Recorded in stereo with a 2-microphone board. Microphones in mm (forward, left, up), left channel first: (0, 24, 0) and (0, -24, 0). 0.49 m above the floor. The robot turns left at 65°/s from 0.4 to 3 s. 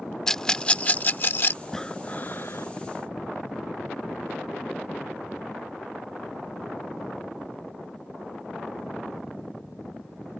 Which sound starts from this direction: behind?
Breathing, at 1.6 s.